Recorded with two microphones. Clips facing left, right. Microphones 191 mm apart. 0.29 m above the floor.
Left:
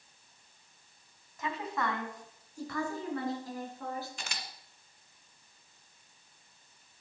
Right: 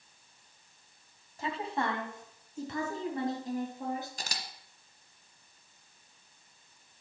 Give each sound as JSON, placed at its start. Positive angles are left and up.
{"t": 1.4, "sound": "a woman speaking", "side_deg": -30, "distance_m": 2.0}
{"t": 4.2, "sound": "a camera shutter", "side_deg": -35, "distance_m": 1.4}